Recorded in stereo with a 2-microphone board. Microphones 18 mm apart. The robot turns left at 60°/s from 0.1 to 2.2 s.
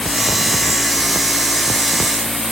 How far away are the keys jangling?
No keys jangling in this recording.